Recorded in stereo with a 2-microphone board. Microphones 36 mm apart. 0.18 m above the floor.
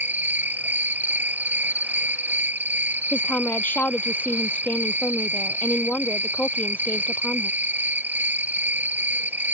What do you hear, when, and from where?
0.0 s an insect: 75° right (ahead or behind)
3.1 s a woman speaking: 65° left (ahead or behind)